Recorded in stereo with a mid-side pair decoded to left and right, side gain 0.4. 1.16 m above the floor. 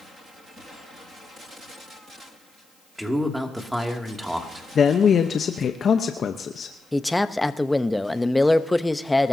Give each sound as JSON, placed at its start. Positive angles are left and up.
{"t": 3.0, "sound": "a man speaking", "azimuth_deg": -5, "distance_m": 2.5}
{"t": 4.8, "sound": "a man speaking", "azimuth_deg": 55, "distance_m": 1.0}
{"t": 6.9, "sound": "a man speaking", "azimuth_deg": 10, "distance_m": 0.9}